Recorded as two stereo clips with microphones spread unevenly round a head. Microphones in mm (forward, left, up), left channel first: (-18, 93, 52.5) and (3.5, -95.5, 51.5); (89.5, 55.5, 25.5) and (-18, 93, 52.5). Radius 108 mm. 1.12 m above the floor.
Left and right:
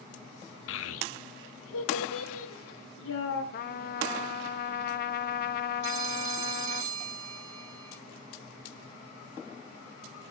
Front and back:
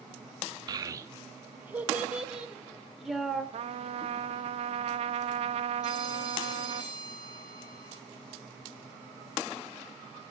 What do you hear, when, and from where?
0.7 s a child speaking: 115° left, 0.9 m; by 3.4 s 75° left, 2.5 m
3.5 s a trumpet: 140° left, 0.5 m
5.8 s a phone ringing: 85° right, 1.3 m